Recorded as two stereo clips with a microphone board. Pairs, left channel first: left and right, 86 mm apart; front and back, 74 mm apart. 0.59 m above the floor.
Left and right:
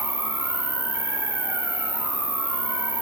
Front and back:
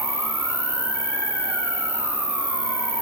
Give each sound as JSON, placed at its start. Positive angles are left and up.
{"t": 0.0, "sound": "an insect", "azimuth_deg": -40, "distance_m": 4.0}